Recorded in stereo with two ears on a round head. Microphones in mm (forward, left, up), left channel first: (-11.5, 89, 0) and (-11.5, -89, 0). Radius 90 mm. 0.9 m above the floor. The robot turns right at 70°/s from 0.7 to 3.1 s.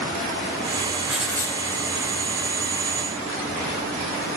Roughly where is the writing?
Ahead.